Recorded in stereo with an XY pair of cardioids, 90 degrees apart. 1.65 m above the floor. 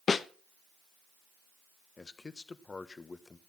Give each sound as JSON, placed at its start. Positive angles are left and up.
{"t": 0.1, "sound": "a snare drum", "azimuth_deg": 45, "distance_m": 0.8}
{"t": 2.0, "sound": "a man speaking", "azimuth_deg": 35, "distance_m": 1.3}